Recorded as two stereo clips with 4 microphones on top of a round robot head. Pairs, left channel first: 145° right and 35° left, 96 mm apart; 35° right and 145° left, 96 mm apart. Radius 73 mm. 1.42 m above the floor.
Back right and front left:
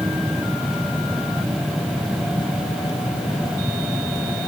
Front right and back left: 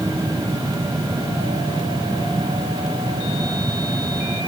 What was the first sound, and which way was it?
Only background noise.